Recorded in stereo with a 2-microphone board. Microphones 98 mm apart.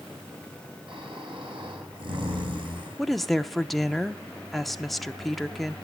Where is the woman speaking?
Centre (ahead or behind), 0.6 m.